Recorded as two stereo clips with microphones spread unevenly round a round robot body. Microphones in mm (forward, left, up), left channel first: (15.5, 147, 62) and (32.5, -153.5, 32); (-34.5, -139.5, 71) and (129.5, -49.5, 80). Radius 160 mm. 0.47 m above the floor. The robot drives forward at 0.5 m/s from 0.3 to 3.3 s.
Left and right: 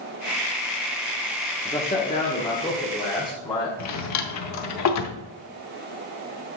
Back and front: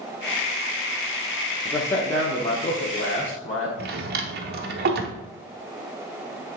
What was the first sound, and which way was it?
A man speaking, 150° left.